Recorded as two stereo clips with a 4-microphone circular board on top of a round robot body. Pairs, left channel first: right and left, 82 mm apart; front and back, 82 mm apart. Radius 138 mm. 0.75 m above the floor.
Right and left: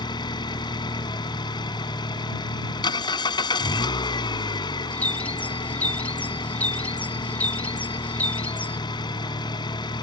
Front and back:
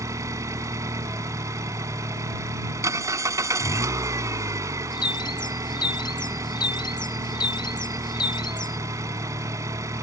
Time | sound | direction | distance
0.0 | an engine running | 125° right | ?
4.9 | a bird | 20° right | ?